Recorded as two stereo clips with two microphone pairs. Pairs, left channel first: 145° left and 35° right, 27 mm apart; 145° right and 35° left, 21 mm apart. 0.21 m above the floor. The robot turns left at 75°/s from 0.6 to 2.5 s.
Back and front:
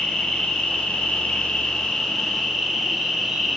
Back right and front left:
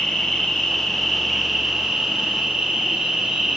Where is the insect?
175° right, 1.8 m; by 3.6 s 45° left, 1.8 m.